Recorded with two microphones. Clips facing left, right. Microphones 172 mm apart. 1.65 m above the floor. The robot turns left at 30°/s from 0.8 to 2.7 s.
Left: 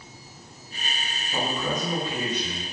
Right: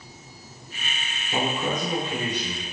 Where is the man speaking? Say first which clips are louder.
Right 2 dB; 135° right, 1.4 m; by 2.6 s 175° right, 1.4 m.